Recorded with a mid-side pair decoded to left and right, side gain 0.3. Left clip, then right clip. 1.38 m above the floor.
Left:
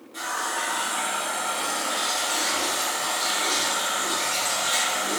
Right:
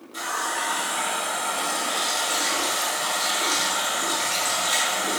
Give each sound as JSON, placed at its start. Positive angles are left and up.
{"t": 0.1, "sound": "a running tap", "azimuth_deg": -65, "distance_m": 1.7}